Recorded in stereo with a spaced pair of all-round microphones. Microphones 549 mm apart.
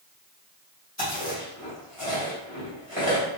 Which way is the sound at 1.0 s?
30° left (ahead or behind).